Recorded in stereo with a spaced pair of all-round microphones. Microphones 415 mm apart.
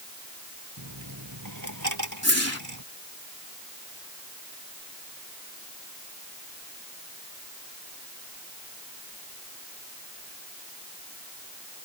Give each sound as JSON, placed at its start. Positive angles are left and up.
{"t": 0.8, "sound": "a dropped coin", "side_deg": -45}
{"t": 2.2, "sound": "a whoosh", "side_deg": 35}